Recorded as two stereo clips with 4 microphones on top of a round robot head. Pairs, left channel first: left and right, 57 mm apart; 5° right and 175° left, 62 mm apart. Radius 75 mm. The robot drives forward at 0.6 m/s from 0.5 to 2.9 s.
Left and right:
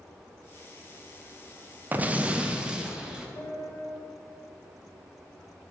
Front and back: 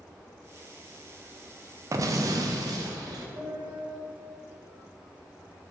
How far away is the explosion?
About 0.5 m.